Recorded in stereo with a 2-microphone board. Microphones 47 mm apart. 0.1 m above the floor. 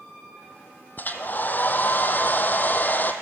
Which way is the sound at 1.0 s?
40° left (ahead or behind).